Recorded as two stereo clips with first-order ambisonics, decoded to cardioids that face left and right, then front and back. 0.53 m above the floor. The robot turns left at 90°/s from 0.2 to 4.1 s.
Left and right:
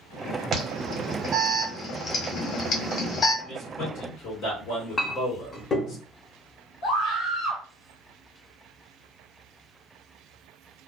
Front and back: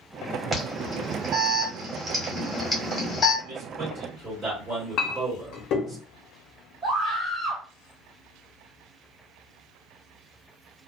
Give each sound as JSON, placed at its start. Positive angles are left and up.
{"t": 0.5, "sound": "an alarm", "azimuth_deg": -75, "distance_m": 1.2}
{"t": 3.4, "sound": "a man speaking", "azimuth_deg": 170, "distance_m": 1.6}
{"t": 5.0, "sound": "a clink", "azimuth_deg": 30, "distance_m": 0.7}
{"t": 6.8, "sound": "a scream", "azimuth_deg": 115, "distance_m": 1.7}